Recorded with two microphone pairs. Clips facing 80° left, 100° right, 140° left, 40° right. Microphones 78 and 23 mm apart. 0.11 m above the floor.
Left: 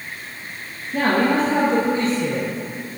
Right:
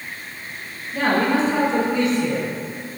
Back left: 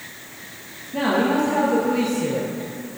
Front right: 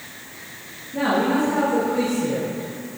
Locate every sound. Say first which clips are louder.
0.9 s a man speaking: left 1 dB, even; 100° left, 2 m; by 2.5 s 140° left, 1.9 m